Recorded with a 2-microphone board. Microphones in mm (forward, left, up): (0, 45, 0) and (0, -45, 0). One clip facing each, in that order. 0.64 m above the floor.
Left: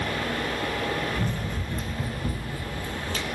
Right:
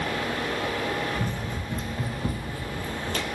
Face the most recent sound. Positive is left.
turn(degrees=-55)  # may be behind; listen again after turning